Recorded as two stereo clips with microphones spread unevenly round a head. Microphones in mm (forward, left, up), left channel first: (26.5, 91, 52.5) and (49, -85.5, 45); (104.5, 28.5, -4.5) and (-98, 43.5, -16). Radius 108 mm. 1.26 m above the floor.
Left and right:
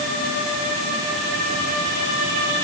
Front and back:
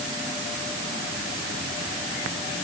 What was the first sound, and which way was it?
Only background noise.